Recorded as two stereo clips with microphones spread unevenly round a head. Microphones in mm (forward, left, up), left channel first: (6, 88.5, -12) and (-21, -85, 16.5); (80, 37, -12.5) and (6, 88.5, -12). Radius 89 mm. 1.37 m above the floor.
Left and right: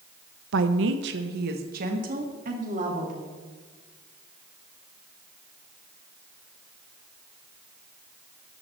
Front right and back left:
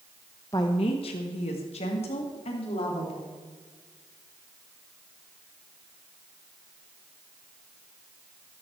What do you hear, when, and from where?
0.5 s a woman speaking: 105° right, 0.6 m; by 3.4 s 50° right, 3 m